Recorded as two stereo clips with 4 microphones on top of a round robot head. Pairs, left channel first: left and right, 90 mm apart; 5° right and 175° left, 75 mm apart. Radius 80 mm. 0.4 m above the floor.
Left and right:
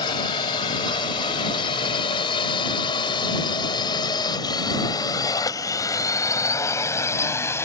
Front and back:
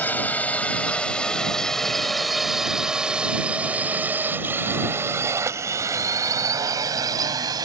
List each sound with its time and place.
0.0 s a drone: 60° left; by 7.7 s 150° left